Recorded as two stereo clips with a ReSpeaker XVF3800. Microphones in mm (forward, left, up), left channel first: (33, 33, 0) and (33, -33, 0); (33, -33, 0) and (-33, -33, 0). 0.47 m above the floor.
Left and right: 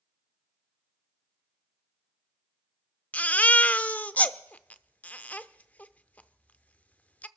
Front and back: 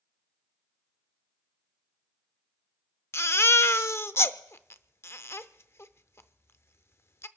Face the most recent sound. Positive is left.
turn(degrees=30)